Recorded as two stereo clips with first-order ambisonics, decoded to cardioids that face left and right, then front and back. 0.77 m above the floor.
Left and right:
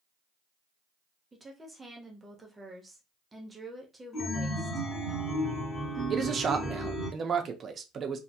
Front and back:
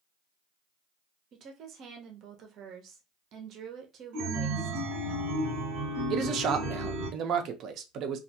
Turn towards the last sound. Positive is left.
turn(degrees=-150)